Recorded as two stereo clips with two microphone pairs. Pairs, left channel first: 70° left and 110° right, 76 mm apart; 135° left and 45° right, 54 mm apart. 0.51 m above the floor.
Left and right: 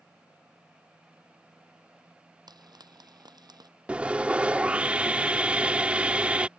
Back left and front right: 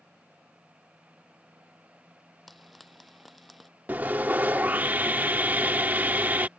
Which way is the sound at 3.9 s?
50° right.